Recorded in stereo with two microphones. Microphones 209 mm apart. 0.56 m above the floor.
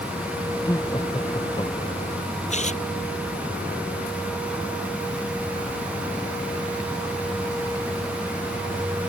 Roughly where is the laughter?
Centre.